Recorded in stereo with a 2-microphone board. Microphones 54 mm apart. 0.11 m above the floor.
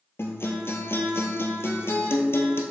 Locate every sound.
0.2 s a guitar: 50° left (ahead or behind), 1.2 m